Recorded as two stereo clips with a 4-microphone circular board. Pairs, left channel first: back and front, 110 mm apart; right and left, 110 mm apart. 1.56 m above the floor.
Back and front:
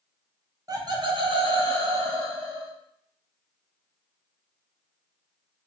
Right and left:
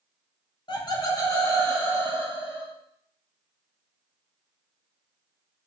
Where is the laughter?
50° right, 0.7 m; by 2.7 s 20° right, 1.8 m.